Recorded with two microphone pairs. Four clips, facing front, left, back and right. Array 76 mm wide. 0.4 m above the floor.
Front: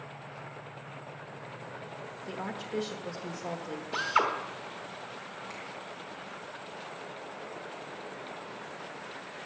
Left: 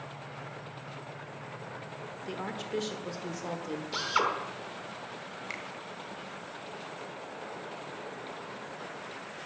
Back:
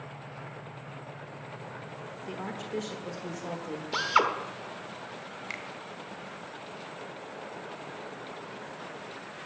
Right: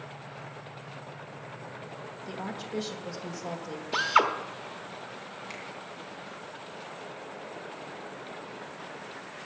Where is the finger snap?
155° left, 1.5 m.